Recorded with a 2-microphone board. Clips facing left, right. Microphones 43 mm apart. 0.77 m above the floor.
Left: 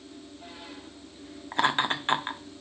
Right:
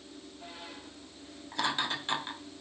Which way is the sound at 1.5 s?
40° left (ahead or behind).